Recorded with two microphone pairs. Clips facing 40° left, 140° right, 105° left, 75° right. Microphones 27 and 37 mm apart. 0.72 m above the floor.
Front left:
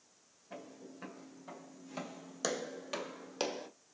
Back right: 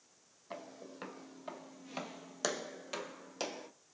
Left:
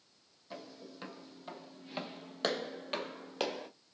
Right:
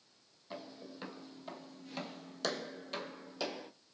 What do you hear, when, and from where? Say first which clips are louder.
0.5 s footsteps: back right 2 dB, right 1 dB; 155° right, 1.4 m; by 3.7 s 95° left, 1.2 m